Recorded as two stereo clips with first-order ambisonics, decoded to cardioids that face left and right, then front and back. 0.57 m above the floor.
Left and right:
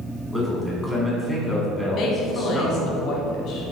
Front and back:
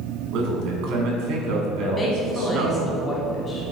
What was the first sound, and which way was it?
A man speaking, 175° right.